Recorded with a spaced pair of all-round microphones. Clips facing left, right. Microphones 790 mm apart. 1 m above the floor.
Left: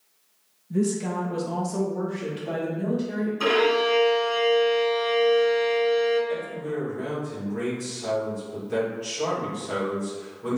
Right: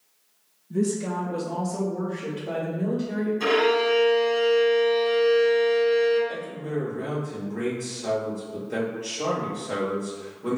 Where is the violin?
50° left (ahead or behind), 1.7 m.